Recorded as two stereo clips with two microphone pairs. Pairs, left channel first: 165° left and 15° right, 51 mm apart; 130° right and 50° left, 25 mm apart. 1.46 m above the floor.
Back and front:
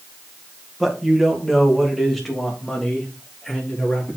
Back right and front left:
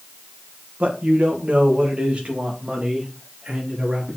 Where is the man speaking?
70° left, 1.8 m; by 4.2 s 90° left, 4 m.